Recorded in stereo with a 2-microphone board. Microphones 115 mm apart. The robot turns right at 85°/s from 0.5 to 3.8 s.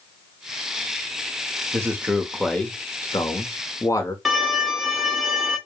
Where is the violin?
Centre (ahead or behind), 1.5 m.